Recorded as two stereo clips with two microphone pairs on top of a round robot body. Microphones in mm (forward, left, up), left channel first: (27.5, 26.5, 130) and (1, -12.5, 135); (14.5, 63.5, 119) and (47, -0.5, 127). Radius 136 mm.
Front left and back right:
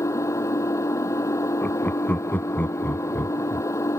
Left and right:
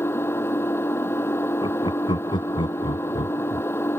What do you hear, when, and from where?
0.0 s an engine running: 60° left
1.6 s laughter: 105° left